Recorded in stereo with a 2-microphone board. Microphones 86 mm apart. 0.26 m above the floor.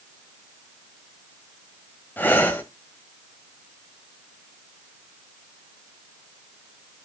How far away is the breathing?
About 1.5 m.